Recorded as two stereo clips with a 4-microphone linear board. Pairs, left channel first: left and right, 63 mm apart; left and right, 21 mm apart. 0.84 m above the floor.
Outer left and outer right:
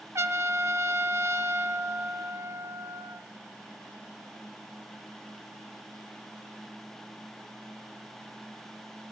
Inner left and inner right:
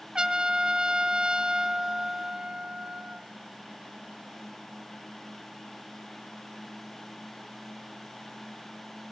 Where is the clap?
No clap in this recording.